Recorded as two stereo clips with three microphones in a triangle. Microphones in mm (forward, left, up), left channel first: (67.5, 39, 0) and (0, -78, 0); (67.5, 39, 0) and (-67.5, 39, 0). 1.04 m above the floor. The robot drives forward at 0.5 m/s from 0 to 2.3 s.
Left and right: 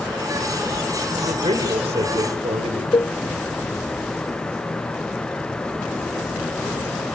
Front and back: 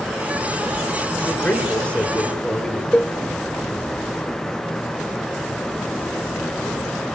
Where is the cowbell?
80° left, 0.9 m.